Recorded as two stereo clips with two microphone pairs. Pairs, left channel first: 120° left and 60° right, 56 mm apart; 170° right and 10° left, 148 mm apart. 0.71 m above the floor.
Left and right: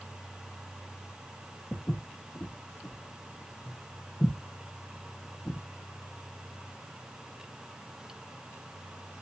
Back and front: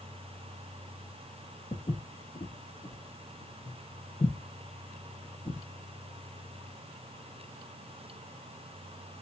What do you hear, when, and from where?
1.7 s footsteps: 155° left, 1.0 m